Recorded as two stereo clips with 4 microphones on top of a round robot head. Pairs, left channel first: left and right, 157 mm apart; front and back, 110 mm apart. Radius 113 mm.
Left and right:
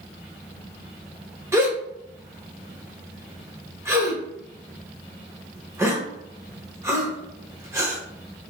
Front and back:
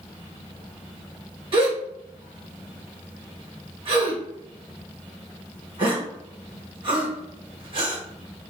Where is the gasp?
160° right, 1.1 m.